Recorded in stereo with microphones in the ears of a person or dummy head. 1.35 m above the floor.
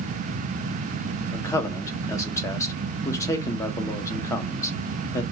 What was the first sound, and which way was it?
A man speaking, 25° left (ahead or behind).